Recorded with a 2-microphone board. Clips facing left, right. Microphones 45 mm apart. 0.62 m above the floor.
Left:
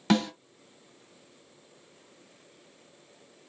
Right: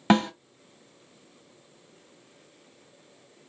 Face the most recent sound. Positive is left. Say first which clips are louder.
# right 4 dB
turn(degrees=-30)  # may be behind; listen again after turning